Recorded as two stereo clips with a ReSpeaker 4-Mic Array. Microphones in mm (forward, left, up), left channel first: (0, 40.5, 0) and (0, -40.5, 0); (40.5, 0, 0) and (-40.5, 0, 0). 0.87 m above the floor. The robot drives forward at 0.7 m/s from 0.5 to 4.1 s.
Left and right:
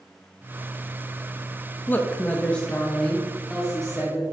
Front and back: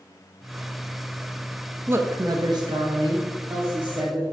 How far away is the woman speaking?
About 0.5 m.